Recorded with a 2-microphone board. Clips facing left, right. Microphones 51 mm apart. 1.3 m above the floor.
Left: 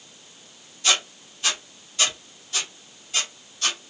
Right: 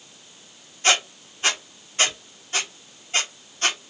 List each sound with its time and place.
0.8 s a squeak: 35° right (ahead or behind), 0.7 m